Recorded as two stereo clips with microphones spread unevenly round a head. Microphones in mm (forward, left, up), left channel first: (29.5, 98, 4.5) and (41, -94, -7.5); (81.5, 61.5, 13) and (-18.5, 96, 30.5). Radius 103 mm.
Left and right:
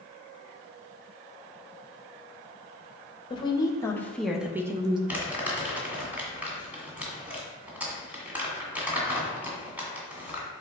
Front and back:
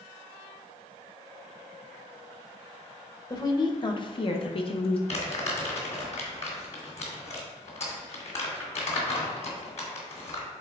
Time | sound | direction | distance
3.3 | a woman speaking | 25° left | 1.2 m
5.1 | crumpling | 5° right | 2 m